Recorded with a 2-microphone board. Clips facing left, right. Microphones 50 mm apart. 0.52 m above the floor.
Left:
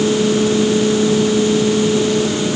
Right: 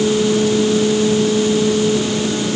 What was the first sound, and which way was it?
Only background noise.